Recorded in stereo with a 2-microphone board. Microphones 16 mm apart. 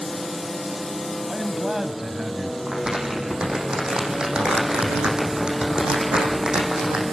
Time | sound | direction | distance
1.3 | a man speaking | 30° right (ahead or behind) | 1.8 m
2.7 | crumpling | 85° right | 5.5 m